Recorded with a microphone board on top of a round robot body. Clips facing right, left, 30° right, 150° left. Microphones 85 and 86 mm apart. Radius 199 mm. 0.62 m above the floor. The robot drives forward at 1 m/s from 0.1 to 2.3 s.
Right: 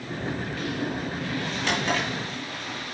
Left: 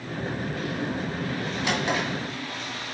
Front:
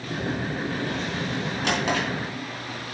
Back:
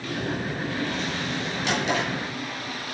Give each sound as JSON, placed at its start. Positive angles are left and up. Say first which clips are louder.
{"t": 1.6, "sound": "a drawer", "louder": "even, even", "azimuth_deg": 10, "distance_m": 2.5}